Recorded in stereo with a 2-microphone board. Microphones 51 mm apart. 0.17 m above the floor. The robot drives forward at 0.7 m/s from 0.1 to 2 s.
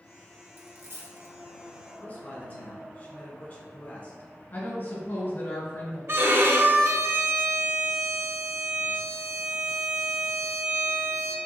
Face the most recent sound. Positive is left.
turn(degrees=-60)  # may be behind; listen again after turning